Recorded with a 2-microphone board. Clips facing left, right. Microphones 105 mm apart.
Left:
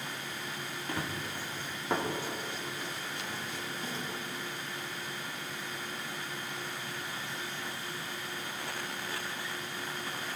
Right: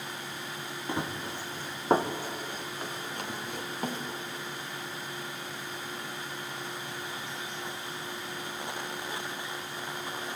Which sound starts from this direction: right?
Running footsteps, at 0.9 s.